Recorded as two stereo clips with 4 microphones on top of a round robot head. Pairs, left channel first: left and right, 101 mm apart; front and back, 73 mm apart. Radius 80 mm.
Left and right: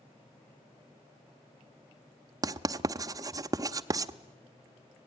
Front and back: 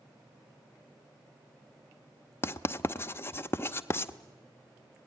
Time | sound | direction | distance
2.4 | writing | 45° right | 0.7 m